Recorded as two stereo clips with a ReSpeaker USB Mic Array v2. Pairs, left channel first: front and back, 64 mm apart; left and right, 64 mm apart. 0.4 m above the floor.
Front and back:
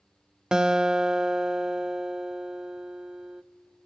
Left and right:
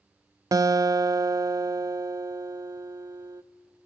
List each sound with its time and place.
0.5 s a guitar: 100° right, 0.5 m